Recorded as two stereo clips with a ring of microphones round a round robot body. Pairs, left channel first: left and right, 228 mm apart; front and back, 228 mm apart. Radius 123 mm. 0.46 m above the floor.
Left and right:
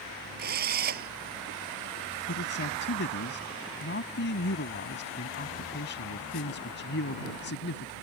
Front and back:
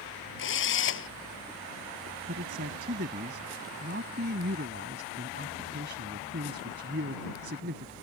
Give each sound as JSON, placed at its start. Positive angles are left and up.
{"t": 0.4, "sound": "a drill", "azimuth_deg": -35}
{"t": 2.3, "sound": "a man speaking", "azimuth_deg": 130}